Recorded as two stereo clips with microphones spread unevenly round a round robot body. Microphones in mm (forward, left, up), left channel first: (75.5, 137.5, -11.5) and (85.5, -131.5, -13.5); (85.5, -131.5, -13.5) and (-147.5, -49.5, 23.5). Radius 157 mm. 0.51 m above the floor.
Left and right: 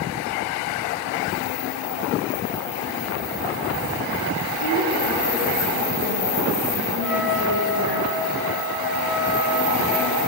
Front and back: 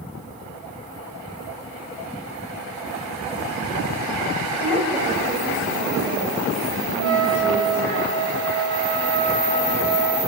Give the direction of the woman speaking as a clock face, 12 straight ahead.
4 o'clock.